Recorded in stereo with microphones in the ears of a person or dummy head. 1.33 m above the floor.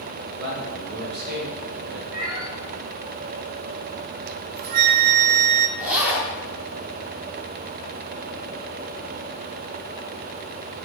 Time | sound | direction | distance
0.4 | a man speaking | 55° right (ahead or behind) | 3 m
2.1 | a cat meowing | 20° right (ahead or behind) | 1.6 m
4.3 | a flute | 55° right (ahead or behind) | 0.6 m
5.8 | a zipper | 5° right (ahead or behind) | 2 m